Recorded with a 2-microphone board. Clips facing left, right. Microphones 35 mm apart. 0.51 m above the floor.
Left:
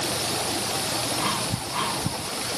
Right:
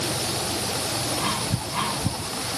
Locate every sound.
Only background noise.